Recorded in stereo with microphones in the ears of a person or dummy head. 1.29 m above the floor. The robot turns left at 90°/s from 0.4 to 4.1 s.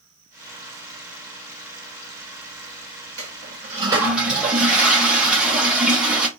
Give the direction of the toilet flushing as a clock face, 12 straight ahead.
3 o'clock.